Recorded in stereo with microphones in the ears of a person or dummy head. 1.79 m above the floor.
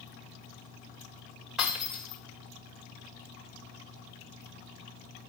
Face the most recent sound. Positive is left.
turn(degrees=-5)  # may be behind; listen again after turning